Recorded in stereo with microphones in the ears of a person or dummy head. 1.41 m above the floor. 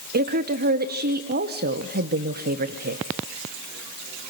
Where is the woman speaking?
45° right (ahead or behind), 0.9 m.